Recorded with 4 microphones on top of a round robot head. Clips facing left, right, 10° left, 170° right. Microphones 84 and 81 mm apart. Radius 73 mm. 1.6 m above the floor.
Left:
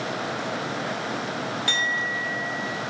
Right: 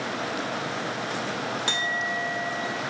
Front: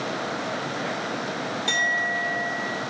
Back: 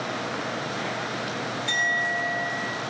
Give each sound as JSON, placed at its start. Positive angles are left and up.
{"t": 1.7, "sound": "a clink", "azimuth_deg": -25, "distance_m": 1.3}